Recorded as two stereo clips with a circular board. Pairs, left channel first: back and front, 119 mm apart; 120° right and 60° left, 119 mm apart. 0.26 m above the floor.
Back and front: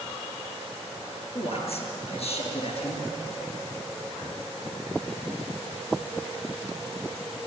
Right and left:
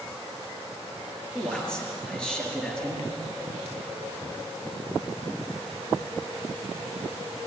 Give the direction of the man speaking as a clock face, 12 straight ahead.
7 o'clock.